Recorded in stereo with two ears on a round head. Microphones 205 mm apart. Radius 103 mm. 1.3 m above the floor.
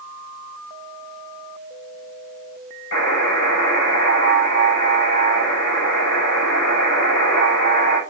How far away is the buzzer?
About 6 m.